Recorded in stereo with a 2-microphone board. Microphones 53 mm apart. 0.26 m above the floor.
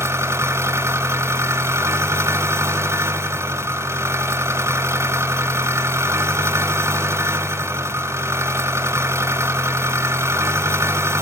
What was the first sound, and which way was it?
An engine running, 60° right (ahead or behind).